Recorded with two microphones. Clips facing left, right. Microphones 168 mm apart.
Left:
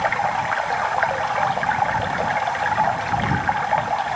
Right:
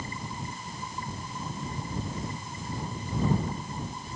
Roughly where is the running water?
Left.